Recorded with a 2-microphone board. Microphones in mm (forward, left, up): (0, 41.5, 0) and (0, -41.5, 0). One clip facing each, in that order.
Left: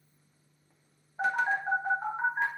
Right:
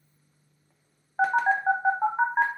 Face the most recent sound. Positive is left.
turn(degrees=-80)